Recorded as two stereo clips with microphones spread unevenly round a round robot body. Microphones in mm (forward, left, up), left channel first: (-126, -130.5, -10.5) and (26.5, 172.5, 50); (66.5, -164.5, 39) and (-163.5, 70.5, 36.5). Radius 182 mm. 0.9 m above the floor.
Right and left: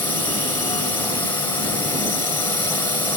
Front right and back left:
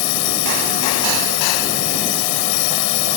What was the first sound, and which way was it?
A drone, 35° right.